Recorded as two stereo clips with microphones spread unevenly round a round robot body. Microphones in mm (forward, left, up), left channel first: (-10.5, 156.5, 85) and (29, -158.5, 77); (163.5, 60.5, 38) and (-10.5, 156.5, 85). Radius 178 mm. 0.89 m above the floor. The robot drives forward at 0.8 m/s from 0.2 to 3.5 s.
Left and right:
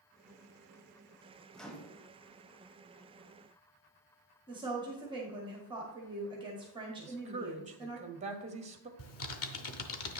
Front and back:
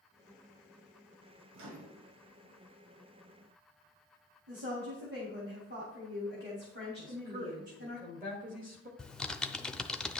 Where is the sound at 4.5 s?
160° right, 1.8 m.